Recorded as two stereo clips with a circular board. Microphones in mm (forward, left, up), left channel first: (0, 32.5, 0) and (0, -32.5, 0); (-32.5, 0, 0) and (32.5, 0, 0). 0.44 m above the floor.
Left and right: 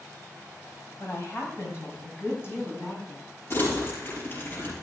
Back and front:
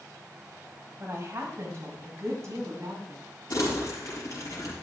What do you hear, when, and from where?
1.0 s a woman speaking: 50° left, 2.5 m; by 3.3 s 35° left, 4 m
3.5 s crumpling: 145° left, 6 m